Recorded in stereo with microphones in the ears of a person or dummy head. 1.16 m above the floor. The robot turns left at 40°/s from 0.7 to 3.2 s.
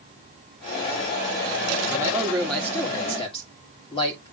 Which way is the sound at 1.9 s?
25° right (ahead or behind).